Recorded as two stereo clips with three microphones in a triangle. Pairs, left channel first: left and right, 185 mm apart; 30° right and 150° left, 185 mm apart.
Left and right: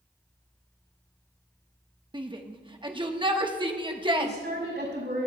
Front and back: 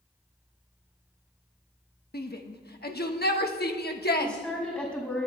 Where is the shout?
30° right, 1.1 m.